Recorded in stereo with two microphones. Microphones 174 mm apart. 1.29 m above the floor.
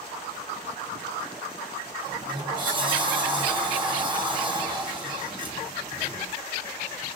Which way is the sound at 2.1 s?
30° right (ahead or behind).